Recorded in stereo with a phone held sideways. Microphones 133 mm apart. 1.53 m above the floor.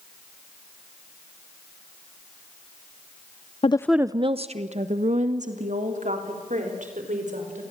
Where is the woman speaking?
45° left (ahead or behind), 0.5 m; by 7.6 s 70° right (ahead or behind), 5.5 m.